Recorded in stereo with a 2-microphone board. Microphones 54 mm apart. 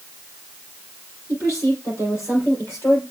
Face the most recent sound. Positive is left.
turn(degrees=60)  # may be behind; listen again after turning